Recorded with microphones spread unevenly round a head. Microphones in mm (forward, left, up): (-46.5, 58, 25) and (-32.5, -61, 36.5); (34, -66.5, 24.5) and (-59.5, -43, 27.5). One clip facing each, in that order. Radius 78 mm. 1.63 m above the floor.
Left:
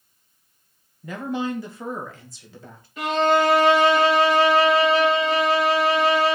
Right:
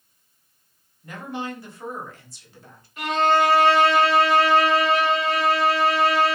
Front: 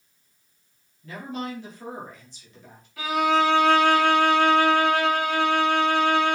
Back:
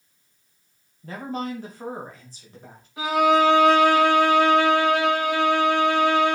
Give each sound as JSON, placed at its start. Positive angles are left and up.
{"t": 1.0, "sound": "a woman speaking", "azimuth_deg": 95, "distance_m": 2.5}
{"t": 3.0, "sound": "a violin", "azimuth_deg": 90, "distance_m": 3.5}